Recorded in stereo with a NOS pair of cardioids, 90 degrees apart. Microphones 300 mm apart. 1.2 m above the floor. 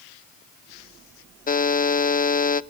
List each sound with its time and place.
1.5 s a buzzer: 30° left, 0.7 m